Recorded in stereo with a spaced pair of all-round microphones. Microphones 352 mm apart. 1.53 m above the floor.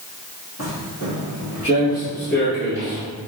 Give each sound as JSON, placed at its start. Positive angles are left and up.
{"t": 0.6, "sound": "footsteps", "side_deg": 40, "distance_m": 1.9}